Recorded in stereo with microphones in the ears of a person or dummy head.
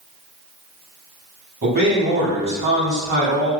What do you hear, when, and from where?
1.6 s a man speaking: 50° right (ahead or behind), 1.5 m